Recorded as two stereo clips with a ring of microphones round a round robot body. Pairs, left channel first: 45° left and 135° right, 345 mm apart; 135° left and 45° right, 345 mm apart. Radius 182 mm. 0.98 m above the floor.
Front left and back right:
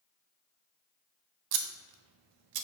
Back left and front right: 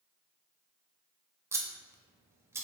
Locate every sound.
1.5 s scissors: 125° right, 0.5 m